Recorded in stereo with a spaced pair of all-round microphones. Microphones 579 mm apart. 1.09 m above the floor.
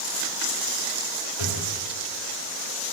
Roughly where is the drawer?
Left.